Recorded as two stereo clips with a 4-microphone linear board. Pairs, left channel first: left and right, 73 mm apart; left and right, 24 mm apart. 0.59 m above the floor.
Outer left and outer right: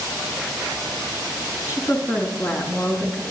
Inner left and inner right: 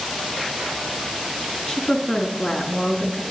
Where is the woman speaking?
40° left (ahead or behind), 5 m.